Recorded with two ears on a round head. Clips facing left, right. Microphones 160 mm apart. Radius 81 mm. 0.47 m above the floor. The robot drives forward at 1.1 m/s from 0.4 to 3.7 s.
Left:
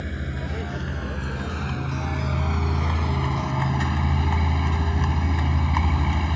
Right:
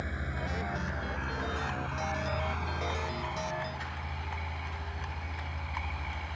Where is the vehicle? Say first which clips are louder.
Left 6 dB; 30° left (ahead or behind); by 6.3 s 80° left.